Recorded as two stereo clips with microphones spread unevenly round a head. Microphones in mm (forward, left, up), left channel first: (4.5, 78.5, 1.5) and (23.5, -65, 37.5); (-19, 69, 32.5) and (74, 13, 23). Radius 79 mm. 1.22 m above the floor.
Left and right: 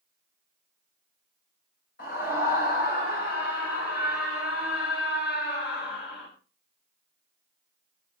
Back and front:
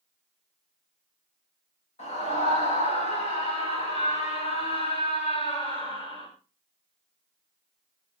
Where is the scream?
130° left, 7 m; by 6.3 s 110° left, 6 m.